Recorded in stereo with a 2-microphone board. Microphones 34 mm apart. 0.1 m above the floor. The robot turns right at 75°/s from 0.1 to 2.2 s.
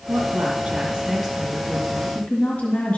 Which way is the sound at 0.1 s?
90° right.